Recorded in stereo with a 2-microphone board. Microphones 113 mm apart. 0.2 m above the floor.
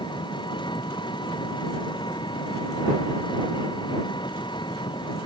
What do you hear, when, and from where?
0.0 s an engine running: 45° left (ahead or behind)